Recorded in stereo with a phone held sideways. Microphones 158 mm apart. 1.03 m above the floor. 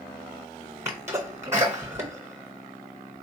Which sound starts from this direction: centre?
A sneeze, at 0.8 s.